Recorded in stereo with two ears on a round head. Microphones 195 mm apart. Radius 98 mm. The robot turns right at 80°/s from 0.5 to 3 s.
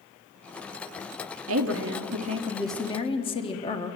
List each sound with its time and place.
1.5 s a woman speaking: 95° right, 1.2 m; by 4.0 s 25° left, 1.2 m